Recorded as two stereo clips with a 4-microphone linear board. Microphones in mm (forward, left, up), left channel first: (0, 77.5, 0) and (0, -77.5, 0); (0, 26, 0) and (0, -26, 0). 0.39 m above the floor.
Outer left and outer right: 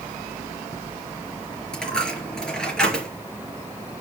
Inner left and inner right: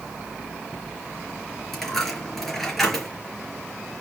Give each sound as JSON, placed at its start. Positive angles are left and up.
{"t": 1.7, "sound": "a dropped coin", "side_deg": 5, "distance_m": 3.5}